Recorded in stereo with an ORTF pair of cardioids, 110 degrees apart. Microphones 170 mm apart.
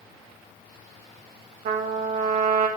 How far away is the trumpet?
About 1.7 m.